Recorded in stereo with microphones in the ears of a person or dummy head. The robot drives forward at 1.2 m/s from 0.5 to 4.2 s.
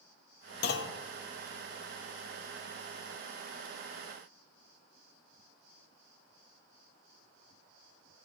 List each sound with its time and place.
0.6 s a clunk: 60° left (ahead or behind), 0.9 m; by 1.0 s 85° left, 0.7 m